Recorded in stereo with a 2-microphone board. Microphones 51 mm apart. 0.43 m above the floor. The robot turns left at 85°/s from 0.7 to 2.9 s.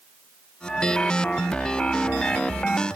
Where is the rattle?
I don't hear a rattle.